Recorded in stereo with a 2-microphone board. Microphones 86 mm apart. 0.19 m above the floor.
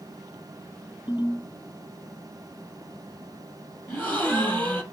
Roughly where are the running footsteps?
No running footsteps in this recording.